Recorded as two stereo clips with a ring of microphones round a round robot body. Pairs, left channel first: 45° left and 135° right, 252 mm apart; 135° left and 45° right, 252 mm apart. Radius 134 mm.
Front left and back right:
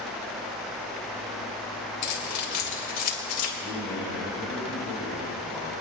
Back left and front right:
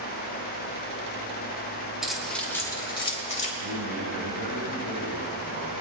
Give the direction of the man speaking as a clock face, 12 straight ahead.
1 o'clock.